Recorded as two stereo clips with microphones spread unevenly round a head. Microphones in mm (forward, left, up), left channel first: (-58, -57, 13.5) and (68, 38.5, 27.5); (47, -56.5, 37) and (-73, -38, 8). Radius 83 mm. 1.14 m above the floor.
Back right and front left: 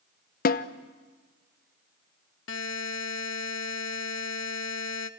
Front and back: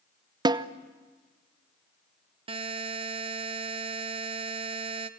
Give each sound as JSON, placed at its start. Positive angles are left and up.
{"t": 0.5, "sound": "a snare drum", "azimuth_deg": -150, "distance_m": 0.9}
{"t": 2.5, "sound": "a buzzer", "azimuth_deg": -140, "distance_m": 1.0}